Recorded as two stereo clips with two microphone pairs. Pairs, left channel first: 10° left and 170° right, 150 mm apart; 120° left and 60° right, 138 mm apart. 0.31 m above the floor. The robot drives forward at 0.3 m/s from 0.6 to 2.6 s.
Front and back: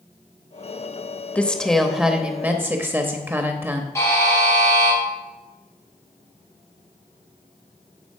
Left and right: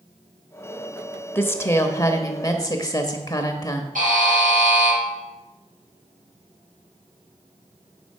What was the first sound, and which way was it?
A woman speaking, 75° left.